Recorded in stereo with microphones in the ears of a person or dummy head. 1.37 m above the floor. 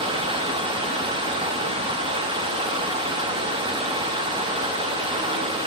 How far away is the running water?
About 0.8 m.